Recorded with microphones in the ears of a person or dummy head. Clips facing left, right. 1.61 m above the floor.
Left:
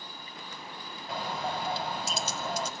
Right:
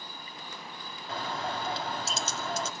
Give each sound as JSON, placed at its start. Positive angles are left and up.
{"t": 1.1, "sound": "a bird", "side_deg": 10, "distance_m": 2.0}